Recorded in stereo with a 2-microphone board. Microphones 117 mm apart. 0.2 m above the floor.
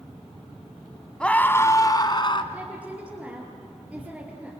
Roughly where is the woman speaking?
Centre.